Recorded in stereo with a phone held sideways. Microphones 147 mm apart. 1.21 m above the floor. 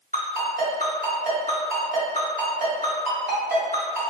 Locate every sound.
0.1 s a ringtone: 75° right (ahead or behind), 1.6 m